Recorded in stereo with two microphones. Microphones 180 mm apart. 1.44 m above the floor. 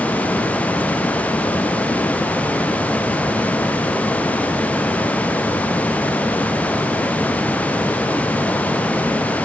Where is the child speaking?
No child speaking in this recording.